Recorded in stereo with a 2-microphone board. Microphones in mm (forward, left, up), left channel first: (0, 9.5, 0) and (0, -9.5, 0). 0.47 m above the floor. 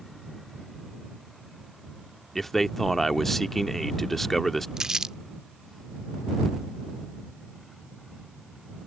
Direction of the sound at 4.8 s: 35° right (ahead or behind).